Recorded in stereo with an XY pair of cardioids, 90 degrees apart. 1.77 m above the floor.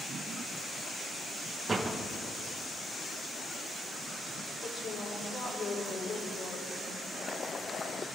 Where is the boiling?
40° left, 0.8 m.